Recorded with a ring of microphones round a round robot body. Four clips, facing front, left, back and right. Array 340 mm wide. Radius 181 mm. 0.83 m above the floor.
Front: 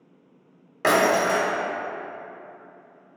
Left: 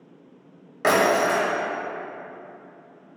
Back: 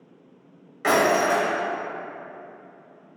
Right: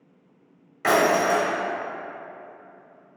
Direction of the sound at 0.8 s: 35° left.